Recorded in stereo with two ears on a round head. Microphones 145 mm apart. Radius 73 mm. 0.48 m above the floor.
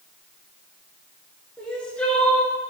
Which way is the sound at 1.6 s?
5° left (ahead or behind).